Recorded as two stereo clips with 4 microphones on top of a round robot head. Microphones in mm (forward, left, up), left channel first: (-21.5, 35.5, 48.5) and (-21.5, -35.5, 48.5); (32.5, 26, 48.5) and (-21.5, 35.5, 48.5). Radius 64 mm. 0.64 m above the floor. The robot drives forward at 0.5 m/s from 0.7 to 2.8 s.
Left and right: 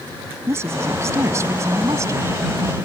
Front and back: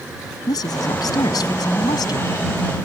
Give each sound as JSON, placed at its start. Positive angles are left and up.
{"t": 0.5, "sound": "a woman speaking", "azimuth_deg": -30}